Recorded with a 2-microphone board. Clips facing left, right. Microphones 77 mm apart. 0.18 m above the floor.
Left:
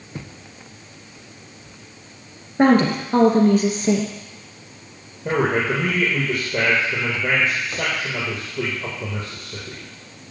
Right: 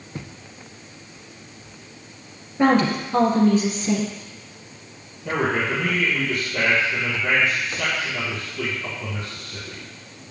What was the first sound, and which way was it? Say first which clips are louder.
A woman speaking: left 3 dB; 55° left (ahead or behind).